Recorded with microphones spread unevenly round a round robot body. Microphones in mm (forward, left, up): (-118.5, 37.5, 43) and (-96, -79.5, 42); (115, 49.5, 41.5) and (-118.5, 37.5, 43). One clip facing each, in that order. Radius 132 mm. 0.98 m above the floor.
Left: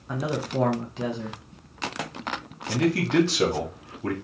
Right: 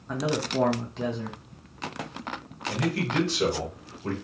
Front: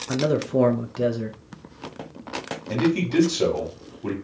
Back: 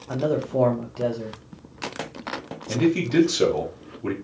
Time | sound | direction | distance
0.1 | a man speaking | 15° left | 0.6 m
2.7 | a man speaking | 105° left | 1.6 m